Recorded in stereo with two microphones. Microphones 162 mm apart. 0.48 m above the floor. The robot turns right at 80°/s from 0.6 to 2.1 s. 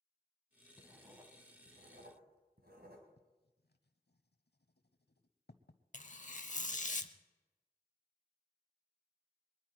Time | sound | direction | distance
0.8 | writing | 10° left (ahead or behind) | 2 m
3.2 | writing | 90° left | 0.8 m
5.9 | tearing paper | 50° left (ahead or behind) | 0.7 m